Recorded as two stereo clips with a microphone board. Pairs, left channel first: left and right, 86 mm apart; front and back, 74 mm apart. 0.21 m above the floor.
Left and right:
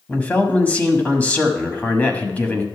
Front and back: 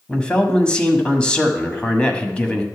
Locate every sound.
0.1 s a man speaking: 50° left, 1.1 m